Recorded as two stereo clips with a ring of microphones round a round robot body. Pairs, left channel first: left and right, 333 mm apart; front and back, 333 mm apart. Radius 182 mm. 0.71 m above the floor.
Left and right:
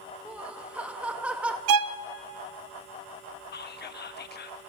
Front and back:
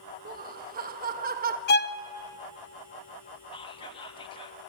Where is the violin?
60° right, 0.5 m.